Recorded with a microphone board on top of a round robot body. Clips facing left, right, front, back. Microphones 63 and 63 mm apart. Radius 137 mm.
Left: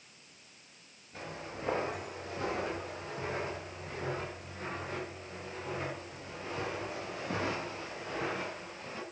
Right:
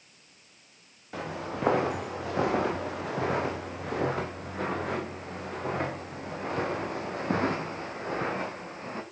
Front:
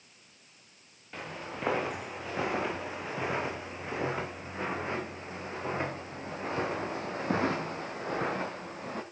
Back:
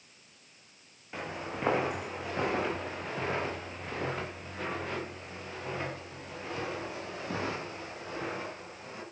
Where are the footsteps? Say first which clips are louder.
Right 8 dB, back 2 dB; 100° right, 4.5 m; by 9.0 s 35° right, 5.5 m.